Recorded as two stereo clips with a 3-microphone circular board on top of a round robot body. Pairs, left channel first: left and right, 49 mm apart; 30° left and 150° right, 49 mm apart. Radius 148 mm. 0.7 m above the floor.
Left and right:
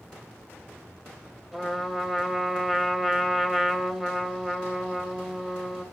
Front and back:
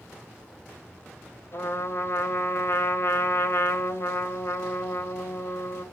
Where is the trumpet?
5° right, 3.5 m.